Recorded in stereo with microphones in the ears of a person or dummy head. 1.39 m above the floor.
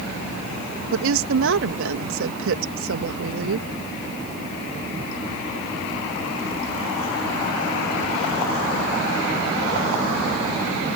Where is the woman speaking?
70° right (ahead or behind).